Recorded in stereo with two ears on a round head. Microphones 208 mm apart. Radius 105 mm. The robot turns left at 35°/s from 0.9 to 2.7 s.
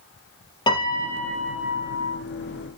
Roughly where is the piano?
Ahead.